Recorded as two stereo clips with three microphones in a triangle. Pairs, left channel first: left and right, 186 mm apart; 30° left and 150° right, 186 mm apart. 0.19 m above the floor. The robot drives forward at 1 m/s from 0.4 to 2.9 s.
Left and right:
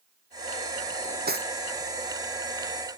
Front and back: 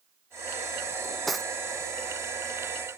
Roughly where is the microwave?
I don't hear a microwave.